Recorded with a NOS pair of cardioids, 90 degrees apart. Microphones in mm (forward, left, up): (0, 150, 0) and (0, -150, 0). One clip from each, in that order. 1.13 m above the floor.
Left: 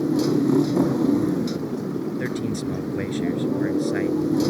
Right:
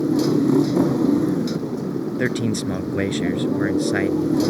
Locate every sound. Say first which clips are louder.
0.0 s a motorcycle: right 2 dB; 10° right
2.2 s a man speaking: right 4 dB; 50° right